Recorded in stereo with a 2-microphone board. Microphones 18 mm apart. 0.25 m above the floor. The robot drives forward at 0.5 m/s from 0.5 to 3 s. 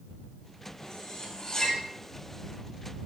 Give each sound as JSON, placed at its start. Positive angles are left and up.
{"t": 0.8, "sound": "cutlery clinking", "side_deg": 45, "distance_m": 4.5}